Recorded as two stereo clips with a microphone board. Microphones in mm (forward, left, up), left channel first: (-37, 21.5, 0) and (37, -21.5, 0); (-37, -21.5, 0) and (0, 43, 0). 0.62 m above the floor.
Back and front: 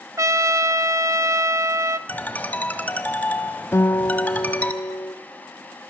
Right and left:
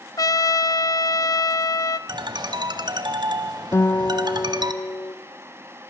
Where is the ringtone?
80° left, 1.4 m.